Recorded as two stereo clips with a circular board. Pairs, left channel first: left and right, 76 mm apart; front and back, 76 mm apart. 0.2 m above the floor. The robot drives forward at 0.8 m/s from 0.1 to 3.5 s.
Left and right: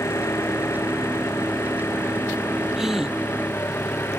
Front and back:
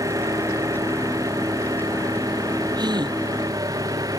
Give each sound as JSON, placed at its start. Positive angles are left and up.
{"t": 0.0, "sound": "an engine running", "azimuth_deg": 140}
{"t": 2.8, "sound": "a gasp", "azimuth_deg": -175}